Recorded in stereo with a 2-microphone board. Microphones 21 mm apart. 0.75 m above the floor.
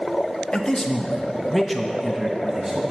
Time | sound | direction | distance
0.5 | a man speaking | 30° left (ahead or behind) | 0.8 m